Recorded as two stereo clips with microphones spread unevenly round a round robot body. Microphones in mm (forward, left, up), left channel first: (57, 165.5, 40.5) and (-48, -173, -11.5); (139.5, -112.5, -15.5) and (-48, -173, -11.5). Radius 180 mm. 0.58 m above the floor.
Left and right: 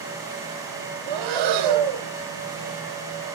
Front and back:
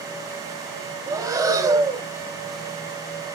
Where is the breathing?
90° right, 1.6 m.